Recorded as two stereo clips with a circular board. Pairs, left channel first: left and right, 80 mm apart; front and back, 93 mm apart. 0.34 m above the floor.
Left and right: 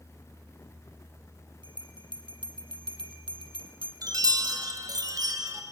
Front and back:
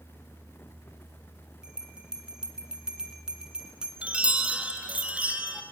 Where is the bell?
100° right, 1.8 m.